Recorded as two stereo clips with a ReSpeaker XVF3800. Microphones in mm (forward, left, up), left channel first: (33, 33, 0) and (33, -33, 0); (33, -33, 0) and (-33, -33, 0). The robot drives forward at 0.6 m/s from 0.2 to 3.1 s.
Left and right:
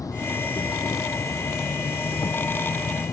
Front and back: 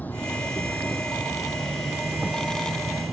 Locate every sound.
0.0 s an insect: 65° left; by 3.1 s 105° left